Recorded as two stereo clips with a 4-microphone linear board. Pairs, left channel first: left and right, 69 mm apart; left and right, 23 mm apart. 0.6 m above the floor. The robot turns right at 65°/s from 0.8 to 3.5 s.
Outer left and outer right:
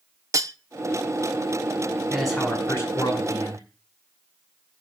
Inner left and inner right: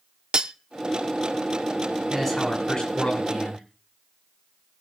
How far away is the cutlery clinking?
About 0.6 m.